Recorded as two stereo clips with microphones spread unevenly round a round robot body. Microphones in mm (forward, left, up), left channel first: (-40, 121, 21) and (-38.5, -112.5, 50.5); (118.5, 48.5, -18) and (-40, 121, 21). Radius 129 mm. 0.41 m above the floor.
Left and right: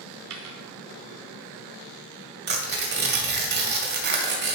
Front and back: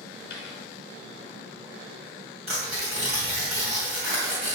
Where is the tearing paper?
135° right, 2.5 m.